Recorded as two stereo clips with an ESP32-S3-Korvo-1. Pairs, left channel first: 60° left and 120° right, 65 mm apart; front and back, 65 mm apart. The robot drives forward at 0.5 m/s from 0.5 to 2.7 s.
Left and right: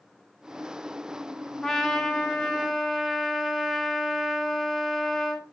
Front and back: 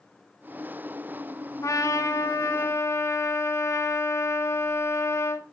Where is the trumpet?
20° right, 2.5 m; by 5.4 s 30° right, 1.9 m.